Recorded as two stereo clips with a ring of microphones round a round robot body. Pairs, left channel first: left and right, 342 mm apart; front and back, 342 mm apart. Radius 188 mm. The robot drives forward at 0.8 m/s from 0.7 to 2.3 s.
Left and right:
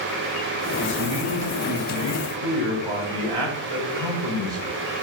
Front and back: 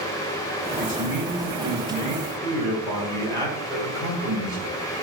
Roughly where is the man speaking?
Ahead right.